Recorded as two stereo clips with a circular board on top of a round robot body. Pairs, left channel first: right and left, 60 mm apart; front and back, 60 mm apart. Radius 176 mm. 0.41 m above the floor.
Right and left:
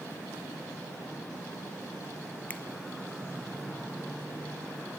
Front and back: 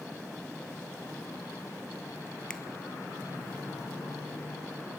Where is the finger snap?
65° right, 1.3 m.